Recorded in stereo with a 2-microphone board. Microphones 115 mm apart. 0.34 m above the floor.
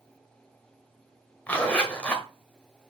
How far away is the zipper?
About 1.8 m.